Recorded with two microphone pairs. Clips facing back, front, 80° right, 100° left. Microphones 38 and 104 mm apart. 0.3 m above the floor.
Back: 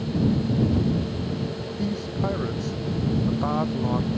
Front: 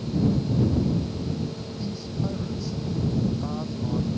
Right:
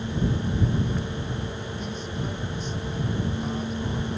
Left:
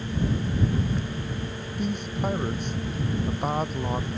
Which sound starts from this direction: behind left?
A man speaking, at 1.8 s.